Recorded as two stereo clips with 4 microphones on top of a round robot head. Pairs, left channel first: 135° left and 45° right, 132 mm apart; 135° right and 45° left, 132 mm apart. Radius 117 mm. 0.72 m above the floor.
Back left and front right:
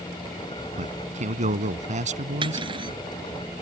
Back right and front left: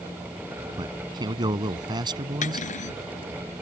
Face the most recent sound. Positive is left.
turn(degrees=-100)